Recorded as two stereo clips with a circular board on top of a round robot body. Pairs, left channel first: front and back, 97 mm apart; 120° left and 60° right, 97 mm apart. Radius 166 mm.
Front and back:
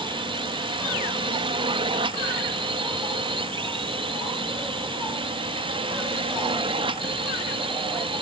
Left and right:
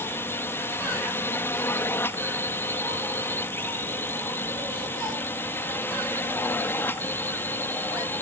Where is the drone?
175° right.